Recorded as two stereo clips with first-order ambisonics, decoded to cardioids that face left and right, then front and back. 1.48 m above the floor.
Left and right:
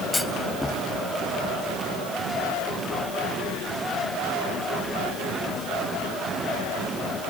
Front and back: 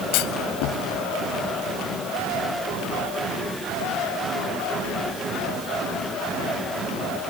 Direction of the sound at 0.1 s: 5° left.